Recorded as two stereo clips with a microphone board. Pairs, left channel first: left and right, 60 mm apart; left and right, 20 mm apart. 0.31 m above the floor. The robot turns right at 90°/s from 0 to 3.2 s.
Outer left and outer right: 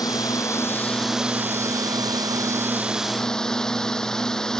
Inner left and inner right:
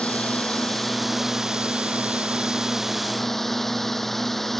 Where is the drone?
85° left; by 4.6 s 10° left.